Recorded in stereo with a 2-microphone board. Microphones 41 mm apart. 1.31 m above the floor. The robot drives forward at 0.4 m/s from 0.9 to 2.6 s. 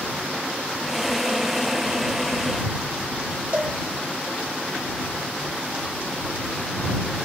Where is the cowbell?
35° right (ahead or behind), 2 m.